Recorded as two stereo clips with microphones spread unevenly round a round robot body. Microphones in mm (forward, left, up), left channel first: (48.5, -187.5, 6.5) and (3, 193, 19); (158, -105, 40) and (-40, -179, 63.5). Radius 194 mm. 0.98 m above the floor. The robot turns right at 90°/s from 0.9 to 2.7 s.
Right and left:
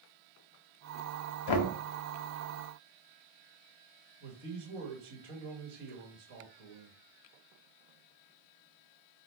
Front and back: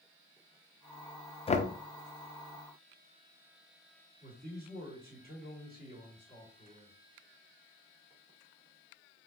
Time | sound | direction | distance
1.5 | knocking | 50° right | 0.7 m
4.2 | a man speaking | 125° left | 1.7 m